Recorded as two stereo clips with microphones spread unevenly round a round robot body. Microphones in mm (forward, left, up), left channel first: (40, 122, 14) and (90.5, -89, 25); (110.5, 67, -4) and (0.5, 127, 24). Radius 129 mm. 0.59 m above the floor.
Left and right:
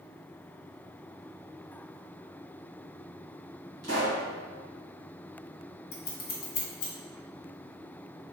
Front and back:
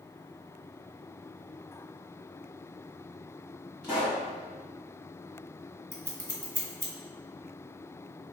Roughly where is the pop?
Behind right.